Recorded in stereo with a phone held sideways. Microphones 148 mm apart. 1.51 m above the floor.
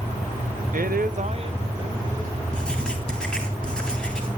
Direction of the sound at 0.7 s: 65° right (ahead or behind).